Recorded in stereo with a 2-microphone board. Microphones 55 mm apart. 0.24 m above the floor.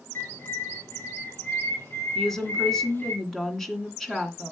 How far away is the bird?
About 3.5 m.